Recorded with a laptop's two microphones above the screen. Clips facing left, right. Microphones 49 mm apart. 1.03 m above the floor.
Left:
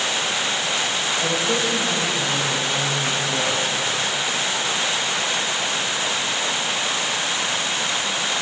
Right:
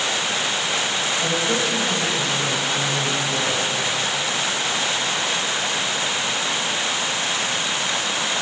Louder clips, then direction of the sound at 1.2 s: Even; 10° left (ahead or behind).